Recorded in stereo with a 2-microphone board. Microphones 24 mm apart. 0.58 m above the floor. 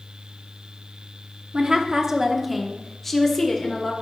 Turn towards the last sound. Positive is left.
turn(degrees=20)  # may be behind; listen again after turning